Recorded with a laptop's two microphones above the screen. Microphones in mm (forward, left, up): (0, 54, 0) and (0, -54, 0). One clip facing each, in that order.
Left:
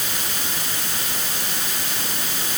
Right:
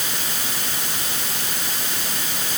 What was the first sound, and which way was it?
Only background noise.